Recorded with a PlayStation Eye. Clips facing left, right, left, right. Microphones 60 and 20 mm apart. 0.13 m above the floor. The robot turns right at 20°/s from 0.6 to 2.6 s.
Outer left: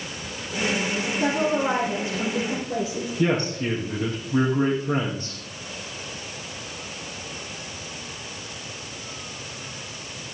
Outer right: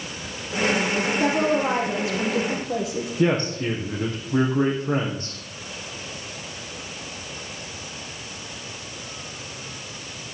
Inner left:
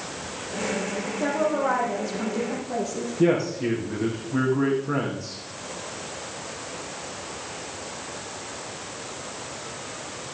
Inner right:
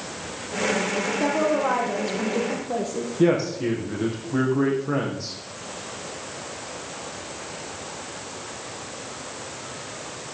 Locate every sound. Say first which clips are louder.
1.2 s a woman speaking: even, even; 60° right (ahead or behind), 5 m; by 3.1 s 70° right (ahead or behind), 5 m
3.2 s a man speaking: outer right 1 dB, inner right 1 dB; 45° right (ahead or behind), 5 m